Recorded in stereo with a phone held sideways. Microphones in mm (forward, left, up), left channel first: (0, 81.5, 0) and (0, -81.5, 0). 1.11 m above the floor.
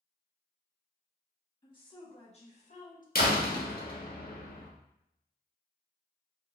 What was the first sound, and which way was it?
A woman speaking, 30° left (ahead or behind).